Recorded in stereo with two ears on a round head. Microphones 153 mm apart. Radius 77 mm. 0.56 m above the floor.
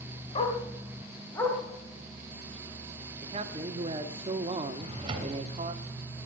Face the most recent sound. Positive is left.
turn(degrees=-30)  # may be behind; listen again after turning